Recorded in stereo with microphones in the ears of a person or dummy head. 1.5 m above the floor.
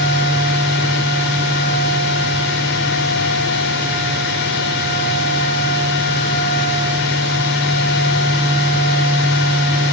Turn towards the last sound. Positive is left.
turn(degrees=60)  # may be behind; listen again after turning